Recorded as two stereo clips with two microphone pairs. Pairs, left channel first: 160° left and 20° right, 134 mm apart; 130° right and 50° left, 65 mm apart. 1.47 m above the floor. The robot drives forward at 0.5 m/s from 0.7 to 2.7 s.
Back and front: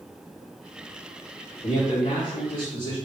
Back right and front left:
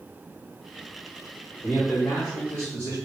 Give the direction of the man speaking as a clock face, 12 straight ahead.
6 o'clock.